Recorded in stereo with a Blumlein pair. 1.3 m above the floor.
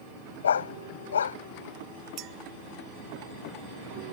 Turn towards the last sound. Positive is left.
turn(degrees=-35)